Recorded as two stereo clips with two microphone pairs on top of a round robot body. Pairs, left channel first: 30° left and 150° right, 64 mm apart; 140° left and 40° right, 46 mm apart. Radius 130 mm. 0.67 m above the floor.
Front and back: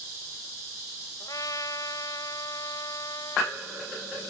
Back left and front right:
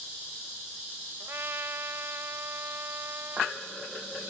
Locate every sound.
1.2 s a trumpet: straight ahead